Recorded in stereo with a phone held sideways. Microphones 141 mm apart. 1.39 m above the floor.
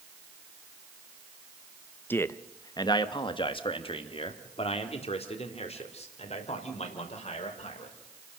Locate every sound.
2.1 s a man speaking: 15° left (ahead or behind), 0.9 m; by 8.0 s 50° left (ahead or behind), 5 m